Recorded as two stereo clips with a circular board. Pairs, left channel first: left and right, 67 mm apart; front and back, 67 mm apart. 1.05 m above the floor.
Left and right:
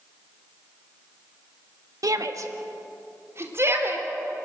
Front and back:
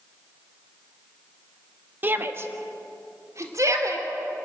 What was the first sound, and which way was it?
A shout, 120° right.